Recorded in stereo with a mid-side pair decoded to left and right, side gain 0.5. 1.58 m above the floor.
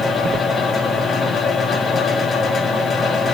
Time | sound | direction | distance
0.0 | a fan | 40° left | 3.5 m